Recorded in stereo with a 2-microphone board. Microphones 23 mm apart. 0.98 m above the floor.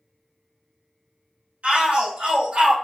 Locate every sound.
1.6 s a shout: 70° right (ahead or behind), 2.5 m; by 2.8 s 60° right (ahead or behind), 1.2 m